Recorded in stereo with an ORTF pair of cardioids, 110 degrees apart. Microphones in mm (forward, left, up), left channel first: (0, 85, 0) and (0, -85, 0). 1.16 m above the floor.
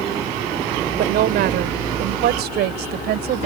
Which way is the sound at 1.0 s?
70° right.